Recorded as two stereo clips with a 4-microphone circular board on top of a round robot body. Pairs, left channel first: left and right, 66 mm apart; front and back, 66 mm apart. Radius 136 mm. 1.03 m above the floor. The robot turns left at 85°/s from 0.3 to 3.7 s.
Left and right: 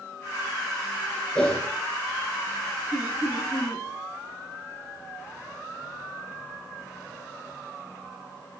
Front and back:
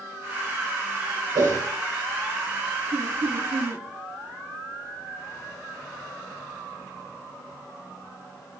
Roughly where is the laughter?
Behind right.